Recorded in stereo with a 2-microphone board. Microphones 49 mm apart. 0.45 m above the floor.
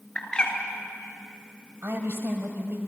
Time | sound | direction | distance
0.1 | a bird | 20° left (ahead or behind) | 3 m
1.8 | a woman speaking | 50° right (ahead or behind) | 3 m